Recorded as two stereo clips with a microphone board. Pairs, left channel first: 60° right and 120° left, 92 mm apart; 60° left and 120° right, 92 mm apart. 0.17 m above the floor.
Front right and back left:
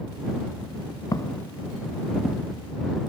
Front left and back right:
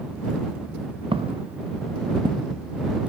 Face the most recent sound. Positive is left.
turn(degrees=-160)